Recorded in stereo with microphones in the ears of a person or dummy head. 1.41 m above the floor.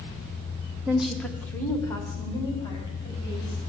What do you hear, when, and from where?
0.9 s a woman speaking: 15° right (ahead or behind), 0.8 m; by 3.6 s 20° left (ahead or behind), 4.5 m